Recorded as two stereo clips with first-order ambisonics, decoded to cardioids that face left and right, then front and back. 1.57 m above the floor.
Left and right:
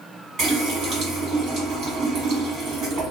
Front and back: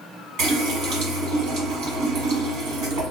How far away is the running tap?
About 1.6 m.